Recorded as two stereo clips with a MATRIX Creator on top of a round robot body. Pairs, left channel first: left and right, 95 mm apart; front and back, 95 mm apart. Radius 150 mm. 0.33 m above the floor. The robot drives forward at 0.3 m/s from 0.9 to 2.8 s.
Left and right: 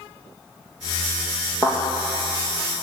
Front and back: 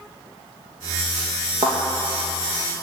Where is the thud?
145° right, 2.5 m.